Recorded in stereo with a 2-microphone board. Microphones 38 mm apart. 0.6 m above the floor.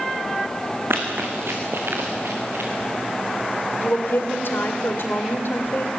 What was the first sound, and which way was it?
Running footsteps, 70° right (ahead or behind).